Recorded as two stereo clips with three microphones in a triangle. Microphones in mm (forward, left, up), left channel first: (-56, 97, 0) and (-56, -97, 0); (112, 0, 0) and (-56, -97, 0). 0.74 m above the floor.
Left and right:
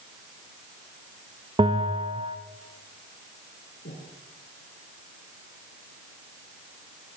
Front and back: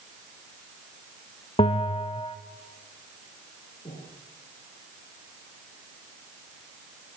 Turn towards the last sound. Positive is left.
turn(degrees=90)